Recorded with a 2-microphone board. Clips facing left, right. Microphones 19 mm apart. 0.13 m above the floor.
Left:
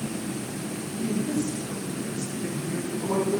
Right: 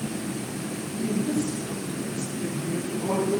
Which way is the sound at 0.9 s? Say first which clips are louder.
Right 1 dB; 60° right (ahead or behind).